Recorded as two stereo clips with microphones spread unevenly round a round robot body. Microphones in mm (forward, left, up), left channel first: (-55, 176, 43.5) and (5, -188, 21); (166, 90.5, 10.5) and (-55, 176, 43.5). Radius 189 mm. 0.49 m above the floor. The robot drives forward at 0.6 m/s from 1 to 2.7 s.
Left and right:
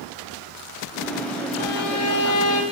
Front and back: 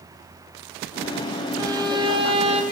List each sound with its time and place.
1.6 s a violin: 85° left, 4 m; by 2.6 s 95° left, 4 m